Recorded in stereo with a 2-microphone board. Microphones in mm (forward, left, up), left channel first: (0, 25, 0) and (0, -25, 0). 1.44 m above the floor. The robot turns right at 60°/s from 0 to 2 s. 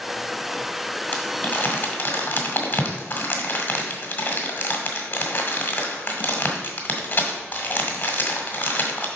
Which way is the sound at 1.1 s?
30° left (ahead or behind).